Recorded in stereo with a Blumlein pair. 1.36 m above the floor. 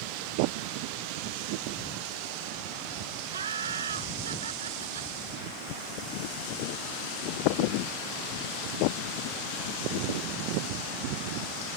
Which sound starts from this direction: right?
Laughter, at 3.3 s.